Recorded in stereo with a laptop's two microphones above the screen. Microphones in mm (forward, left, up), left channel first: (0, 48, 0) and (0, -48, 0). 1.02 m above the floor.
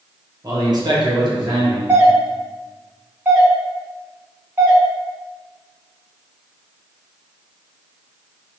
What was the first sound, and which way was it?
A man speaking, 40° right (ahead or behind).